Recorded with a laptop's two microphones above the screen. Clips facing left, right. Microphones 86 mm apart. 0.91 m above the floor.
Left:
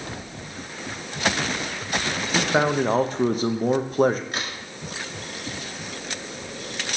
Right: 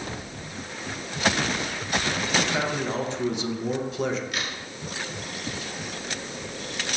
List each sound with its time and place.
2.4 s a man speaking: 45° left (ahead or behind), 0.6 m
4.3 s a crack: 30° left (ahead or behind), 1.5 m